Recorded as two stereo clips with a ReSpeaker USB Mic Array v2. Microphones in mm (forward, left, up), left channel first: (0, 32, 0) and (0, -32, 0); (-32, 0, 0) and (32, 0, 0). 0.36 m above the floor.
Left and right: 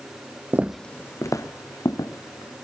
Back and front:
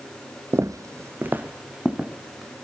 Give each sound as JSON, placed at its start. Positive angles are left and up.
{"t": 0.5, "sound": "footsteps", "azimuth_deg": -35, "distance_m": 0.7}